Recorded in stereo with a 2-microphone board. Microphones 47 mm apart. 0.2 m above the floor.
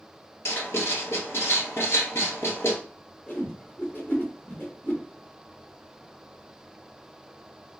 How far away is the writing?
About 1.5 m.